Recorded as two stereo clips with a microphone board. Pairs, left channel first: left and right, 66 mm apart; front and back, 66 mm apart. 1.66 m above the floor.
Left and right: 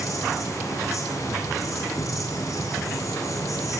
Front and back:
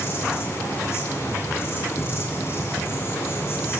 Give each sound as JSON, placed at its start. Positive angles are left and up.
{"t": 0.0, "sound": "an insect", "azimuth_deg": 50, "distance_m": 7.5}